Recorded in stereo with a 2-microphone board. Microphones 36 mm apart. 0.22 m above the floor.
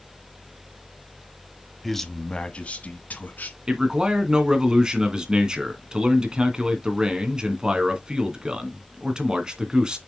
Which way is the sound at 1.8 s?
Centre (ahead or behind).